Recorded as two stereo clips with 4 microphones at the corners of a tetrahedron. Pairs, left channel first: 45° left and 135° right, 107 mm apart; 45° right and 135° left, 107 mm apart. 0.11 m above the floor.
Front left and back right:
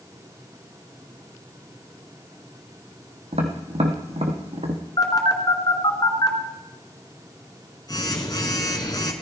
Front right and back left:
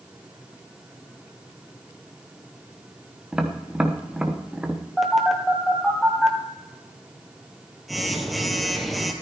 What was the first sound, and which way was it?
Tapping, 145° right.